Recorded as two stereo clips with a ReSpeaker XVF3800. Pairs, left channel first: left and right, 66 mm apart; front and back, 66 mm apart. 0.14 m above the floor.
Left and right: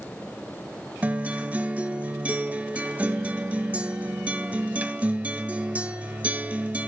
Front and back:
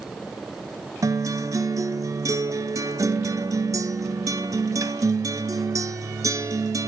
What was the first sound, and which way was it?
A guitar, 155° right.